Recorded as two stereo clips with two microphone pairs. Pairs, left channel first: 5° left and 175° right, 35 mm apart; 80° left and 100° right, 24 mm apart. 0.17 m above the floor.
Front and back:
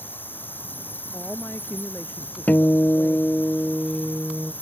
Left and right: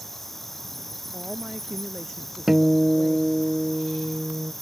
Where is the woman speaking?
25° right.